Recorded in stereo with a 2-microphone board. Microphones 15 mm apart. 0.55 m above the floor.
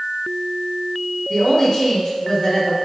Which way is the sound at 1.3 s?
40° left (ahead or behind).